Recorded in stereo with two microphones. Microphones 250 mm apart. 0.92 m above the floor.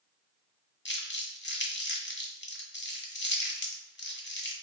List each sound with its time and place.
0.8 s crumpling: 45° left (ahead or behind), 0.9 m